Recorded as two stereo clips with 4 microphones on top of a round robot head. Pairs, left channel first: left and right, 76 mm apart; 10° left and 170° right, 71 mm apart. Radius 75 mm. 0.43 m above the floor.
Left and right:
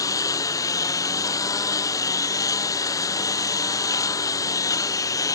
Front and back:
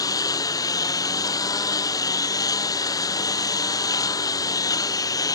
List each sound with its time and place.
0.0 s a lawn mower: 45° left